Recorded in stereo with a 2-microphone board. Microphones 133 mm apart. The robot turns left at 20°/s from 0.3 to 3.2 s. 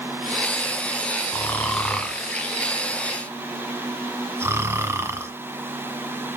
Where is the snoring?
15° left (ahead or behind), 1.3 m; by 5.3 s 20° right (ahead or behind), 1.3 m.